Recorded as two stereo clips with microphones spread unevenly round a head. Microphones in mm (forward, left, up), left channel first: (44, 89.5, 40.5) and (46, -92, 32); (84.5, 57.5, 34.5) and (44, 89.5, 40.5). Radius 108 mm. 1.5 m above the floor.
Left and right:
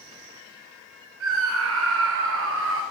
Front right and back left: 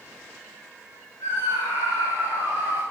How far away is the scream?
About 2.5 m.